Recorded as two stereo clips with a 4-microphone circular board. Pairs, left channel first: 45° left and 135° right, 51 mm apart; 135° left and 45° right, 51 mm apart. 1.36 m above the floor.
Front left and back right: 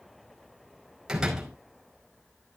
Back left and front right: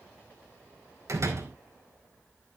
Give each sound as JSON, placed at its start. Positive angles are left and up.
{"t": 1.1, "sound": "a door slam", "azimuth_deg": -60, "distance_m": 5.0}